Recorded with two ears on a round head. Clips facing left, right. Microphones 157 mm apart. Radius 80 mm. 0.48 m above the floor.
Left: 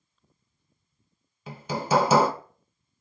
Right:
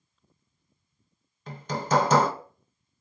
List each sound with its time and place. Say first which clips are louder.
1.5 s hammering: left 1 dB; 5° left (ahead or behind), 0.5 m